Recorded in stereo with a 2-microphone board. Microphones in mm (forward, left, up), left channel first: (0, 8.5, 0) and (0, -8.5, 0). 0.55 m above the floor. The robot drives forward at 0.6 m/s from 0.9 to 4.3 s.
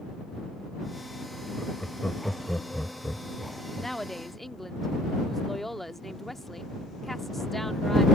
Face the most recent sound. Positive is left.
turn(degrees=10)  # may be behind; listen again after turning